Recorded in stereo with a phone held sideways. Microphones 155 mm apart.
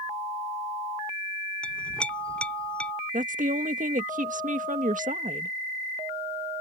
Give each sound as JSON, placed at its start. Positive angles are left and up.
{"t": 1.6, "sound": "a clink", "side_deg": 5}
{"t": 3.1, "sound": "a woman speaking", "side_deg": -60}